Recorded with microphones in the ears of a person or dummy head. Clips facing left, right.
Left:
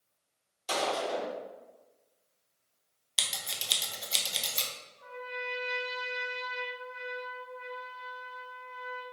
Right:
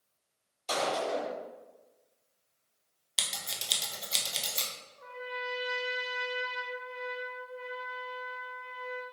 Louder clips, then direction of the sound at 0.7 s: Right 1 dB; centre (ahead or behind).